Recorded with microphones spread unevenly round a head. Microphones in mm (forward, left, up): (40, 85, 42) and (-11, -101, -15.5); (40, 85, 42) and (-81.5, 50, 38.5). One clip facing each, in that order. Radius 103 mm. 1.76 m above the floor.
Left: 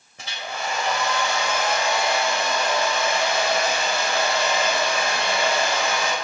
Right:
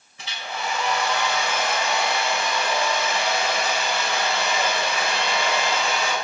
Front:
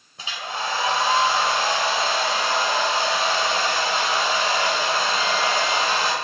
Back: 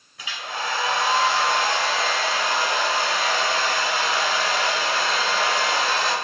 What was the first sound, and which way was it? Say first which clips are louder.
A hair dryer: even, front 1 dB; 70° left.